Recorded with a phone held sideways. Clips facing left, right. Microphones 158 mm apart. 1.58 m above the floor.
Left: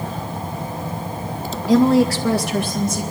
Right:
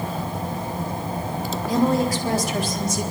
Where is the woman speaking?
85° left, 1.2 m; by 3.0 s 50° left (ahead or behind), 3 m.